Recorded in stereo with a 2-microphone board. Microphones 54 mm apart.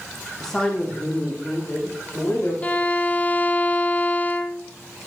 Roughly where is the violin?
Left.